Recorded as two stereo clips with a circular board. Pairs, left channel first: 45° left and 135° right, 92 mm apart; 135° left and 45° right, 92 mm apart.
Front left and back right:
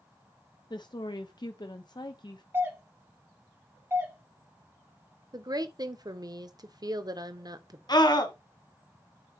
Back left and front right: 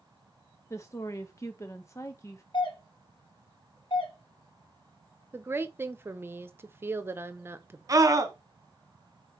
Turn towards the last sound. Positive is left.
turn(degrees=5)